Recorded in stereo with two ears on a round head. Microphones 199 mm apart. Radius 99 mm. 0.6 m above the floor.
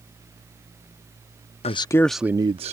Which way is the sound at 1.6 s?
30° left (ahead or behind).